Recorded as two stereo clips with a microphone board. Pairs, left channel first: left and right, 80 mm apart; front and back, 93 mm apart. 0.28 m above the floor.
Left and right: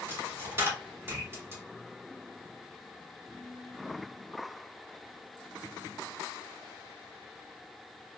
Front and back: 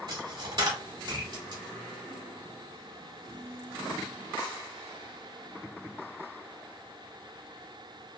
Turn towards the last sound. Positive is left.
turn(degrees=-145)